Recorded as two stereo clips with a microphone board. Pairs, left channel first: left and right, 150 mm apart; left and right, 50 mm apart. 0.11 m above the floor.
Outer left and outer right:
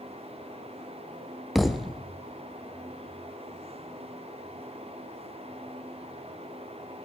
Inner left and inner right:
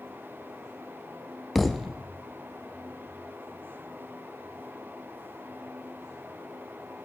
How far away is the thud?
About 1.6 m.